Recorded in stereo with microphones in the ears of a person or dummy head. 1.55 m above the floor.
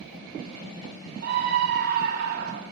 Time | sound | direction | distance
1.2 | a scream | 55° right (ahead or behind) | 1.8 m